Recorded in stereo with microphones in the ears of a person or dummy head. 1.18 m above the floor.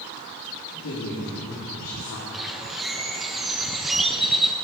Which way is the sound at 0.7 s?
70° left (ahead or behind).